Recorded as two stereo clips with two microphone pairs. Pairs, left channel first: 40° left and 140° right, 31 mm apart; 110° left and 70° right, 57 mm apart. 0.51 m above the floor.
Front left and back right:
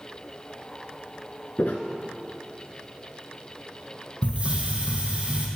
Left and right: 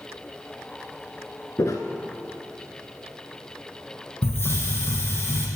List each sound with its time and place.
1.6 s footsteps: 80° left, 2.5 m
4.2 s a hiss: 160° left, 3 m